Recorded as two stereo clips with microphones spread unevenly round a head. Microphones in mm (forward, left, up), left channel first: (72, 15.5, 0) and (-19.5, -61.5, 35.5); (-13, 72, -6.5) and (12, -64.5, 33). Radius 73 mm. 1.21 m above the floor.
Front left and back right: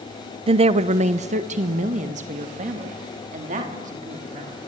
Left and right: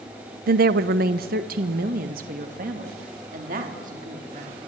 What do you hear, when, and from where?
0.5 s a woman speaking: 95° right, 0.7 m; by 4.6 s 115° right, 4 m